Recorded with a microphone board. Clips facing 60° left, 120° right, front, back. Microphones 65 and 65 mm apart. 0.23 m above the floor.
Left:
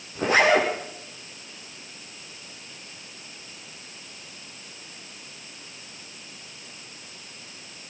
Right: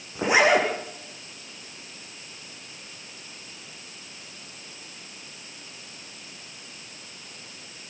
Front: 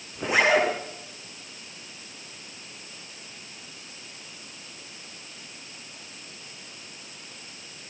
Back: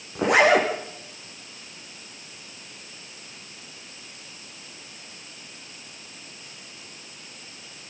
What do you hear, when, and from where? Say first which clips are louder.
0.1 s a zipper: even, back 3 dB; 165° left, 9 m